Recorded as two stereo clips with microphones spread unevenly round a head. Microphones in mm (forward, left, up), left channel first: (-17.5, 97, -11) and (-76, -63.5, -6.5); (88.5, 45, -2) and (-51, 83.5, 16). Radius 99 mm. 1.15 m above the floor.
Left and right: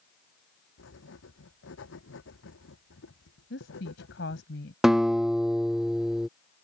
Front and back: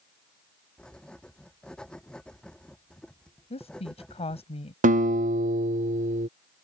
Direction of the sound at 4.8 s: 160° left.